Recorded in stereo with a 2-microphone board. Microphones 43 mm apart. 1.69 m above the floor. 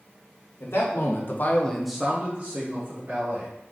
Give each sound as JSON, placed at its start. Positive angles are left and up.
{"t": 0.6, "sound": "a man speaking", "side_deg": 70, "distance_m": 1.4}